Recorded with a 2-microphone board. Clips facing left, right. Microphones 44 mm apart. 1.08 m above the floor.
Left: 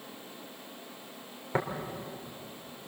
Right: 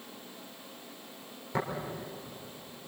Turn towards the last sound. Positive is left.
turn(degrees=25)  # may be behind; listen again after turning